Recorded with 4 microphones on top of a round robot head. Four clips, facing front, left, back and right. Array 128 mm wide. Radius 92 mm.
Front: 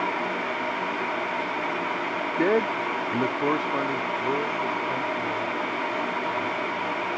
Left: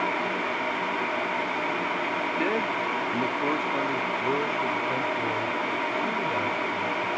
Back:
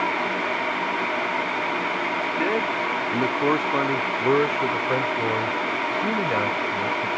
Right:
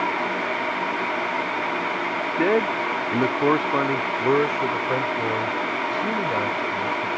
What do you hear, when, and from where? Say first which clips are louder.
2.4 s a man speaking: right 9 dB, front 4 dB; 55° right; by 7.1 s 160° right